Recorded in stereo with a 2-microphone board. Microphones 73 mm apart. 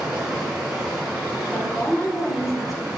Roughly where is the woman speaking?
Centre.